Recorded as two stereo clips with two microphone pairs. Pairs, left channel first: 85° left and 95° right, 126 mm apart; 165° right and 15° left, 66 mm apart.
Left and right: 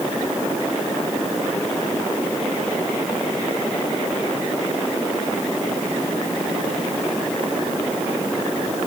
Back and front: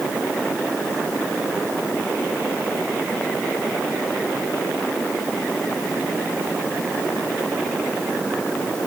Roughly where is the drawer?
No drawer in this recording.